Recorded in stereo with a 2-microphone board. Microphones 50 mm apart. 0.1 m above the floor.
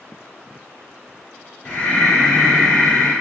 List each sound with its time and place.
1.6 s breathing: 30° left (ahead or behind), 1.1 m